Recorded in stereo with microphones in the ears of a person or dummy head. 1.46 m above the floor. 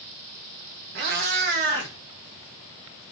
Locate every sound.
0.9 s a cat meowing: 50° right (ahead or behind), 1.0 m; by 3.1 s 5° left (ahead or behind), 0.9 m